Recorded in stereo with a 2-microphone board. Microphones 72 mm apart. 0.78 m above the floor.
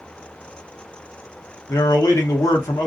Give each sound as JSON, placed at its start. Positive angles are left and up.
{"t": 1.7, "sound": "a man speaking", "side_deg": 60, "distance_m": 1.0}